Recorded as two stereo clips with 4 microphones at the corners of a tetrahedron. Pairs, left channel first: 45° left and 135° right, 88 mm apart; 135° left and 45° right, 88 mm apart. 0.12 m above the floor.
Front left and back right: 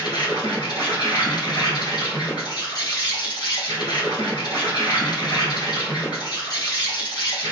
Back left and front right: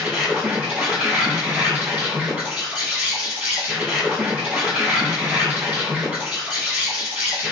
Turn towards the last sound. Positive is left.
turn(degrees=30)